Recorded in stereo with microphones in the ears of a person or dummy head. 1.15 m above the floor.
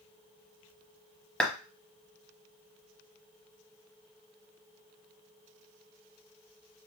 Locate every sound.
1.4 s a clap: 5° left (ahead or behind), 1.0 m